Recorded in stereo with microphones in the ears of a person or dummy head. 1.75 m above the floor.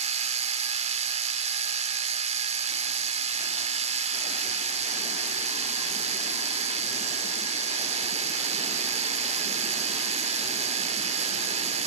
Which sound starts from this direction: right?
A machine running, at 0.0 s.